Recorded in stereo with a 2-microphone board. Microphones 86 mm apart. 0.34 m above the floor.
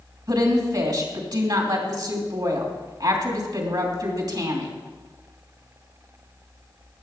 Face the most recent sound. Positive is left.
turn(degrees=-55)  # may be behind; listen again after turning